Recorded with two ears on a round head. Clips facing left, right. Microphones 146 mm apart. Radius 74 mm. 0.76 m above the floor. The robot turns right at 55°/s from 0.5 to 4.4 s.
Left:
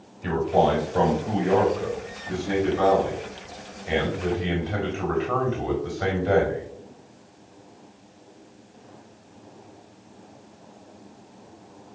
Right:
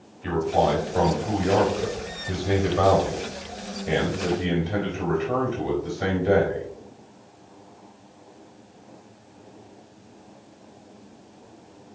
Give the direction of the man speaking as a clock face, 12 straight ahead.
8 o'clock.